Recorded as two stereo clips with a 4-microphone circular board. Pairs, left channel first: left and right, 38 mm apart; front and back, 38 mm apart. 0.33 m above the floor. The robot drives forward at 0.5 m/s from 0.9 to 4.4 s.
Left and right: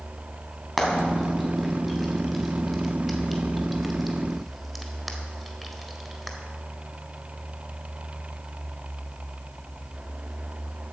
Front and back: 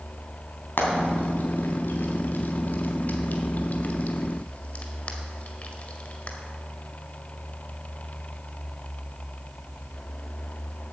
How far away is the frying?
About 3 m.